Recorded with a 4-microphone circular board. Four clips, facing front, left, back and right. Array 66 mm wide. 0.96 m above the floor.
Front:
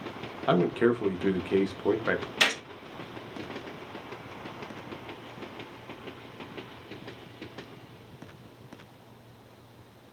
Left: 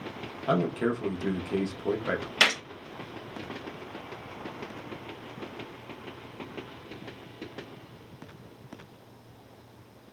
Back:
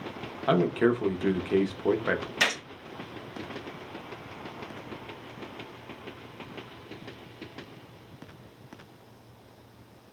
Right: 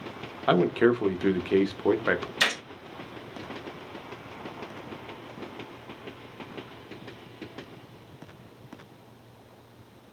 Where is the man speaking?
90° right, 0.6 m.